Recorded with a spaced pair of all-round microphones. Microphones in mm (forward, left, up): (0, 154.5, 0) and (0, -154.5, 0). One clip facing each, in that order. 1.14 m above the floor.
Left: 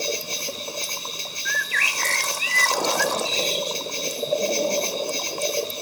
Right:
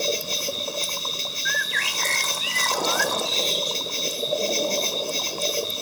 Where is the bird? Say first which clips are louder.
Right 1 dB; 35° left (ahead or behind), 0.8 m.